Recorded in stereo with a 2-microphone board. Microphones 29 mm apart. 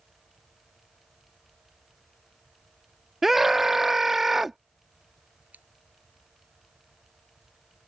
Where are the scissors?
80° right.